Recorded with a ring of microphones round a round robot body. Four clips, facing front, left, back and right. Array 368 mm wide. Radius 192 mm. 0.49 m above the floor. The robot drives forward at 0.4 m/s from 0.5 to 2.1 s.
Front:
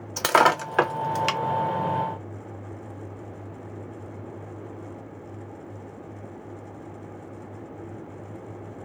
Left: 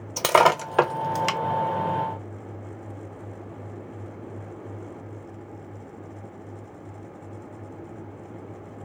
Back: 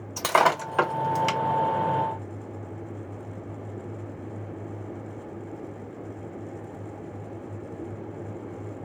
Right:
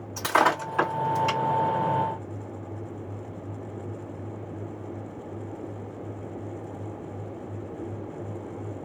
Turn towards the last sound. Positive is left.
turn(degrees=95)